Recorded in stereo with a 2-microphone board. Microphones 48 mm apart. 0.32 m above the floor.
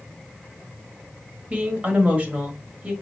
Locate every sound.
1.5 s a woman speaking: 35° right (ahead or behind), 1.3 m